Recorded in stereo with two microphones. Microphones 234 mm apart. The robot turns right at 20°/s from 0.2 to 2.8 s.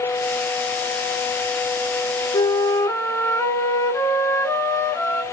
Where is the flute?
20° left (ahead or behind), 1.2 m; by 5.2 s 10° left (ahead or behind), 1.2 m.